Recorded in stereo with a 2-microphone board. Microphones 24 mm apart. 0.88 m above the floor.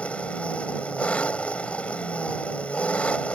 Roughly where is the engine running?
Left.